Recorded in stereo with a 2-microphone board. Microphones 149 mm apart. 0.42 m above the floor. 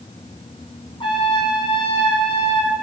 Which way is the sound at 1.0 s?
35° left (ahead or behind).